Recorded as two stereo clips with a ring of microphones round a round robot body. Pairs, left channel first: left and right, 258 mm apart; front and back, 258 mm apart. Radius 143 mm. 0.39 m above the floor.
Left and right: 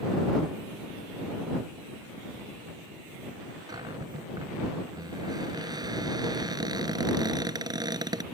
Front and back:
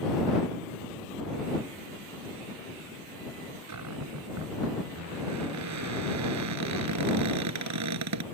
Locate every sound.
3.7 s a cupboard door: 165° right